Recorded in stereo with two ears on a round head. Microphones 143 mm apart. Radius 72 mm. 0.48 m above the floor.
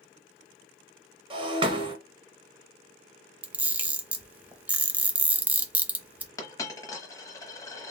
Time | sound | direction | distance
1.3 | breaking glass | 30° right (ahead or behind) | 1.1 m
3.4 | a camera shutter | 10° right (ahead or behind) | 0.6 m
6.4 | a dropped coin | 20° left (ahead or behind) | 0.9 m